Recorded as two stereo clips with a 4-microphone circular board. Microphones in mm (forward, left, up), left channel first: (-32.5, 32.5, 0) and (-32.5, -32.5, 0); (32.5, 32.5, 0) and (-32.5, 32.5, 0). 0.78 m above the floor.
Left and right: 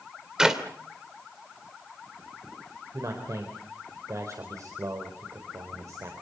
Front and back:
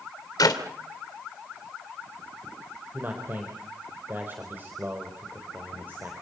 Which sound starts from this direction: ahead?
A clap, at 0.4 s.